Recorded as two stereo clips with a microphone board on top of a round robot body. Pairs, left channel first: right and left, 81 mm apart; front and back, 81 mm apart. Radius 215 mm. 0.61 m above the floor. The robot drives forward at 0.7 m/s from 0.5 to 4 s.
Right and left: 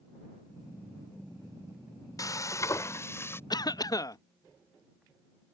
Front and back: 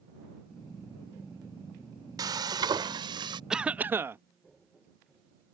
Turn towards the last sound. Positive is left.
turn(degrees=-125)